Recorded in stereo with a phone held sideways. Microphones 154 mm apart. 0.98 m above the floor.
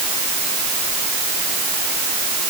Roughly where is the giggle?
I don't hear a giggle.